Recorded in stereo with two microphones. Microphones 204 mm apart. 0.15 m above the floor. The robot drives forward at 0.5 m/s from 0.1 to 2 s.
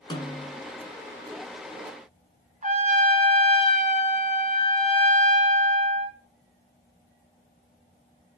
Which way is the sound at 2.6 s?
40° right (ahead or behind).